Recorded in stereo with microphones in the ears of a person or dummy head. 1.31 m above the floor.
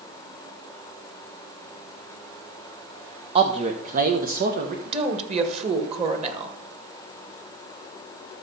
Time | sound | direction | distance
3.4 | a man speaking | 25° right (ahead or behind) | 0.6 m
4.8 | a woman speaking | 35° right (ahead or behind) | 1.8 m